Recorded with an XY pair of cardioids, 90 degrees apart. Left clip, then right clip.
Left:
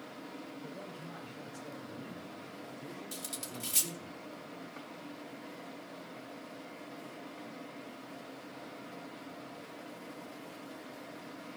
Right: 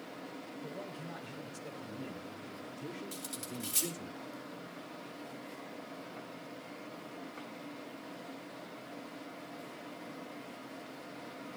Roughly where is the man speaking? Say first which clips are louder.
Right 2 dB; ahead right.